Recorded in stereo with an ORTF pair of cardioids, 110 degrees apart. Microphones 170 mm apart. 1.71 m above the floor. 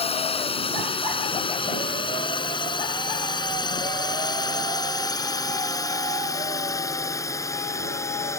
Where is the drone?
35° left; by 8.4 s 15° left.